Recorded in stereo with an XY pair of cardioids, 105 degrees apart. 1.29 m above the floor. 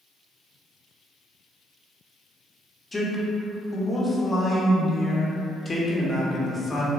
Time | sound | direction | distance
2.9 | a man speaking | 20° left | 0.8 m